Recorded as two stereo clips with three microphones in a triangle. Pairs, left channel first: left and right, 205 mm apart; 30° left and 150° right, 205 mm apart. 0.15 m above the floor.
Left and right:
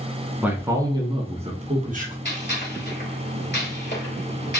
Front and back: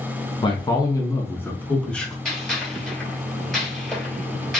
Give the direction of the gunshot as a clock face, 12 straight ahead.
8 o'clock.